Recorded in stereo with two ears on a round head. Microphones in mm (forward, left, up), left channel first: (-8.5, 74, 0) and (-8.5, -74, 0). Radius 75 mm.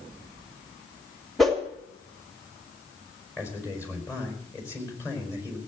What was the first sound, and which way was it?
A whoosh, centre (ahead or behind).